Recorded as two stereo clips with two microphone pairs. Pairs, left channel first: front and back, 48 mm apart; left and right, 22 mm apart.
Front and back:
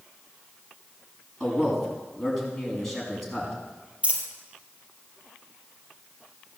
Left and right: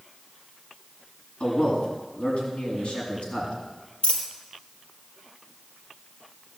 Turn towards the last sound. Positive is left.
turn(degrees=120)